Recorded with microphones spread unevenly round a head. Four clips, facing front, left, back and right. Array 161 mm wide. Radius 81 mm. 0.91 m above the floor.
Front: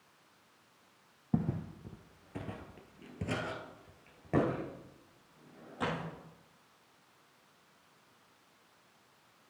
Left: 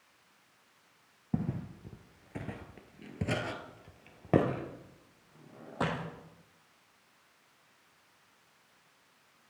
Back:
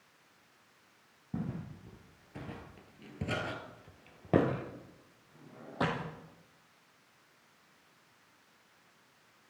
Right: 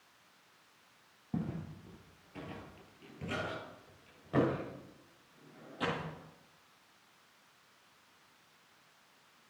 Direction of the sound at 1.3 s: 25° left.